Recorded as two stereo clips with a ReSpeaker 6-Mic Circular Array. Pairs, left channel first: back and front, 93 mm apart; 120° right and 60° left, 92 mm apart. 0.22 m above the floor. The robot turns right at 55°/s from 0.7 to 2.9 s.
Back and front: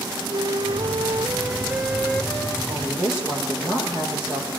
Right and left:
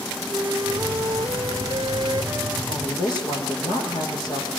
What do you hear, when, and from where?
0.3 s a flute: 25° left, 1.1 m; by 2.6 s 130° left, 1.1 m
2.7 s a woman speaking: 90° right, 9.5 m; by 4.5 s 75° right, 9.5 m